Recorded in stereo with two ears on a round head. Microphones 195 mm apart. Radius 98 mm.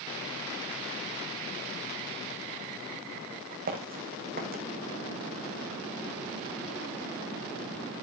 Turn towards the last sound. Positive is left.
turn(degrees=-45)  # may be behind; listen again after turning